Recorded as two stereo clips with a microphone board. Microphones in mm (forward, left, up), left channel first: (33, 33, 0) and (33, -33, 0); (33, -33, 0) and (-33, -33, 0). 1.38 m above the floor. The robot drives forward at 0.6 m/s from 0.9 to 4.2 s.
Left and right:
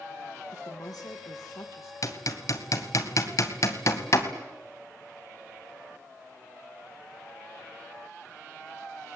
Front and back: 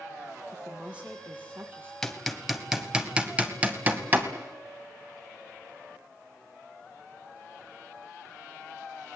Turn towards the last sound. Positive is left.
turn(degrees=125)